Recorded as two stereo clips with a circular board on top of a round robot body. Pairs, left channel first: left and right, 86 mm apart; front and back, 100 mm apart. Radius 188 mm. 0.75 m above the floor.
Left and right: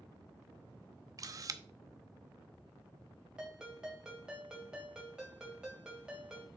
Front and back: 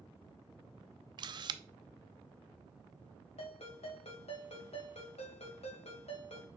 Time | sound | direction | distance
1.2 | a camera shutter | 135° right | 0.5 m
3.4 | a ringtone | 10° right | 2 m